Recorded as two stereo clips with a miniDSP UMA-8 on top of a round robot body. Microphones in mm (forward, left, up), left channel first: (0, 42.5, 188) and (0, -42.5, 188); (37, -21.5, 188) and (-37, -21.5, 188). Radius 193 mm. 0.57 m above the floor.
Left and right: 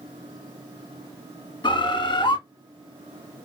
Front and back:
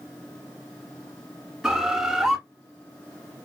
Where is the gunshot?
No gunshot in this recording.